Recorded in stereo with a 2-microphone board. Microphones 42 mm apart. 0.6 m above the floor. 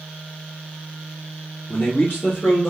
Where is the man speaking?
50° left (ahead or behind), 2 m; by 2.7 s 35° left (ahead or behind), 2 m.